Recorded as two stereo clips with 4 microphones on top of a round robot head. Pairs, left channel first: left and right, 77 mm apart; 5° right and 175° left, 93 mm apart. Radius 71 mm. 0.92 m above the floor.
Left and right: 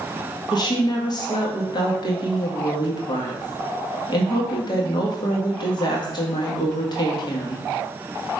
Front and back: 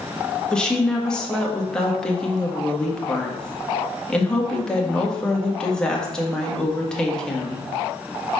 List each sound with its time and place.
0.5 s a woman speaking: 75° left, 1.7 m